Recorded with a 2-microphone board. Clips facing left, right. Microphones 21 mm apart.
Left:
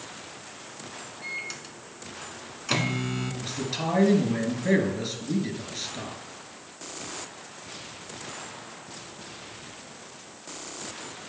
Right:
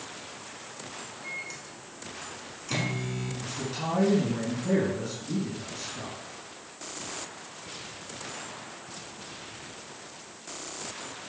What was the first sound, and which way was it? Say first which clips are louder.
A microwave: left 4 dB; 40° left (ahead or behind).